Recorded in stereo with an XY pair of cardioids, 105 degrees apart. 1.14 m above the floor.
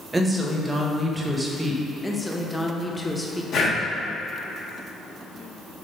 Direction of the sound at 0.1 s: 20° right.